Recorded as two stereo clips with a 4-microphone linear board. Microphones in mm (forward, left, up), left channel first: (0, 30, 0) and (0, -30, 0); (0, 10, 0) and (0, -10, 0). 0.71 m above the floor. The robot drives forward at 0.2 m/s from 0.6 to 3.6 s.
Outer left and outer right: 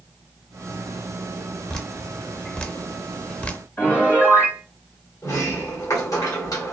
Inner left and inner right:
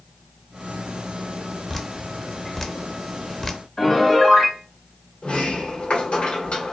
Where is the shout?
I don't hear a shout.